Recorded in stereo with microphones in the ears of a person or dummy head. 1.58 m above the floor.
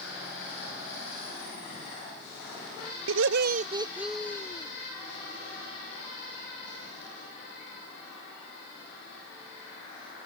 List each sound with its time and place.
3.1 s laughter: 70° right (ahead or behind); by 4.7 s 25° left (ahead or behind)